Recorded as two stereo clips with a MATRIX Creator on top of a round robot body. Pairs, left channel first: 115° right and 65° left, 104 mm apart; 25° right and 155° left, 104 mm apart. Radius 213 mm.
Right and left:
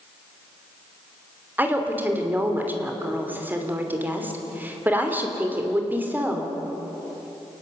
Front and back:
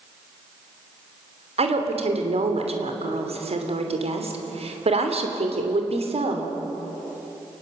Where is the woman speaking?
140° left, 3 m.